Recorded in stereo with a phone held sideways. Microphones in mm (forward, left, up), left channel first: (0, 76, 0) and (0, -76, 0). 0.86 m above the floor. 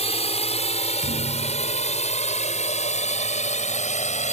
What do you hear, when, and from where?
0.0 s a drone: 45° left (ahead or behind); by 4.3 s 50° left (ahead or behind)
1.0 s a thud: 60° right (ahead or behind)